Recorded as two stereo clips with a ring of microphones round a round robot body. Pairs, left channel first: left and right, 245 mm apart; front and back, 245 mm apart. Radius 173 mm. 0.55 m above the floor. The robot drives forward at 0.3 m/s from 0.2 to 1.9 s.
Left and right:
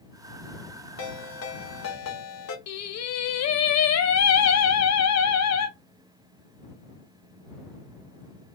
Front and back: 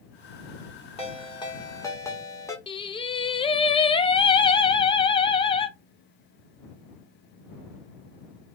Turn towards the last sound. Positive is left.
turn(degrees=70)